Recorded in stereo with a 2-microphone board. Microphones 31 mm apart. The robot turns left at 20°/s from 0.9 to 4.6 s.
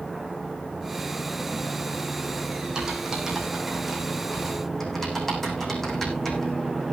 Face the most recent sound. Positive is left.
turn(degrees=5)  # may be behind; listen again after turning